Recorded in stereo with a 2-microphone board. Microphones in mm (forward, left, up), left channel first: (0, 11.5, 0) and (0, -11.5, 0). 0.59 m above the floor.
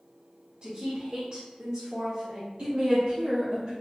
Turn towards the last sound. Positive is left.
turn(degrees=-60)  # may be behind; listen again after turning